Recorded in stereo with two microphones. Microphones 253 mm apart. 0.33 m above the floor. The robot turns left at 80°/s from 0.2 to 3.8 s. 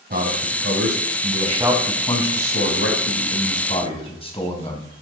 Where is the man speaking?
45° right, 2.5 m; by 4.9 s 25° left, 2.5 m.